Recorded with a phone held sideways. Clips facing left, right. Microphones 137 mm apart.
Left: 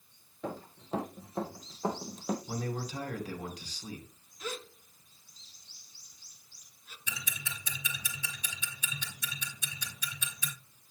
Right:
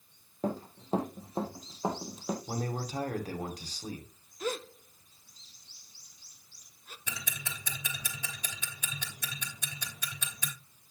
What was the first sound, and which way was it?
Running footsteps, 40° right (ahead or behind).